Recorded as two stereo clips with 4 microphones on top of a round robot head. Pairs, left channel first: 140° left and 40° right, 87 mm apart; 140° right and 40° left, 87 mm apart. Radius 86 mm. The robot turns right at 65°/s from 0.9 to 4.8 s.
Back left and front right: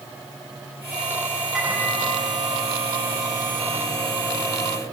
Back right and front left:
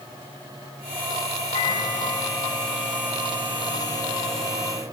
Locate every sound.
1.5 s a microwave: 125° right, 6 m; by 4.8 s 85° left, 6 m